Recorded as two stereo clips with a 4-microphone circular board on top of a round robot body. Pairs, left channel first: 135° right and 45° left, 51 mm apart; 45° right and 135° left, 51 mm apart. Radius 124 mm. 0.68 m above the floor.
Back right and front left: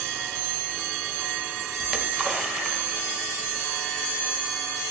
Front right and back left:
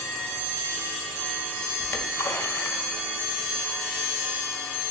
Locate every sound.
1.8 s a splash: 25° right, 1.6 m